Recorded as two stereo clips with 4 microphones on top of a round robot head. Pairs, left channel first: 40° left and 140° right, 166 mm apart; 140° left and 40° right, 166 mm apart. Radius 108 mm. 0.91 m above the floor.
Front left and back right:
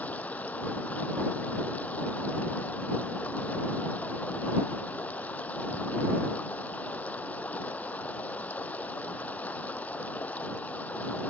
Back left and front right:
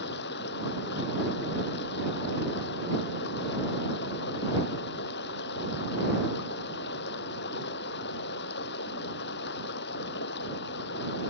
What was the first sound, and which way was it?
Running water, 120° left.